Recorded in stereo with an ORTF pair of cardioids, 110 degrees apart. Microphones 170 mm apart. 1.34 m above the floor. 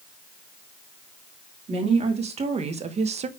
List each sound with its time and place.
1.7 s a woman speaking: 40° right, 2.5 m